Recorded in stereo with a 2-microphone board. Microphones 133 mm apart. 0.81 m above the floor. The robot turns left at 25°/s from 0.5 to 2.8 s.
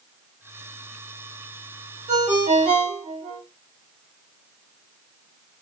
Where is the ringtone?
60° right (ahead or behind), 1.0 m; by 3.4 s 45° right (ahead or behind), 1.0 m.